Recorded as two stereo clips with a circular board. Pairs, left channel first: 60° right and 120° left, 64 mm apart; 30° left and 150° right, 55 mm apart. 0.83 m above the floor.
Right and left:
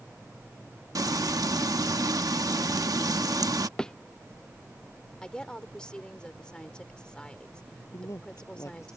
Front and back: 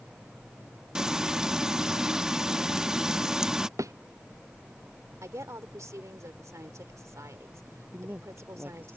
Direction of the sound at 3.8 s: 140° right.